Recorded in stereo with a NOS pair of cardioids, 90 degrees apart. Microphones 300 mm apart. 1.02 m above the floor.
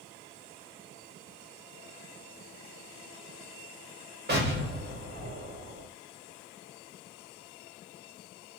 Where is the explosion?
35° right, 1.3 m.